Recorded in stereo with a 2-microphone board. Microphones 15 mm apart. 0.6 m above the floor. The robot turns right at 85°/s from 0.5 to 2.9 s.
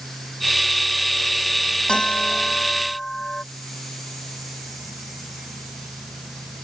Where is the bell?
60° left; by 3.4 s 145° left.